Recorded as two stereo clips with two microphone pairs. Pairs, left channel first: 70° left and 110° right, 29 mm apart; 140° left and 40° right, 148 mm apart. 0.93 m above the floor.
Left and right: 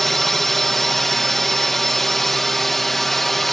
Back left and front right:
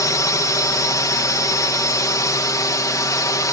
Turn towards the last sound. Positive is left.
turn(degrees=135)